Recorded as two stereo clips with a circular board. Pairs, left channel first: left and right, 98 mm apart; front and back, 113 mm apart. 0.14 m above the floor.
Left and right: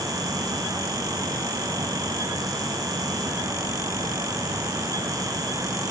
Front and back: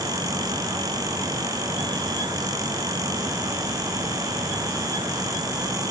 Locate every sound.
Only background noise.